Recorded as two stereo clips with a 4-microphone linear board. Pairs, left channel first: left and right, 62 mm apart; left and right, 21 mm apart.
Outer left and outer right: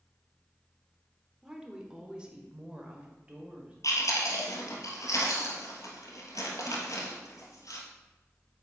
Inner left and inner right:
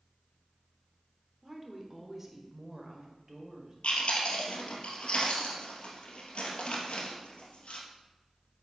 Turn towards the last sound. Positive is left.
turn(degrees=70)  # may be behind; listen again after turning